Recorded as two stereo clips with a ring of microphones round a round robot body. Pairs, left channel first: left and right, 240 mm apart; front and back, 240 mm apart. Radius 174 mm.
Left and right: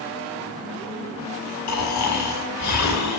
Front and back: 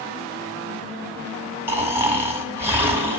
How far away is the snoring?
About 6.5 m.